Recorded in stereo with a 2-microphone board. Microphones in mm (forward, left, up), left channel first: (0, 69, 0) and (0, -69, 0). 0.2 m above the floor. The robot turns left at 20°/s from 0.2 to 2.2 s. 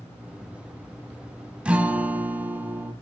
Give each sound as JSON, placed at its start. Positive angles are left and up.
{"t": 1.6, "sound": "a guitar", "side_deg": -10, "distance_m": 0.8}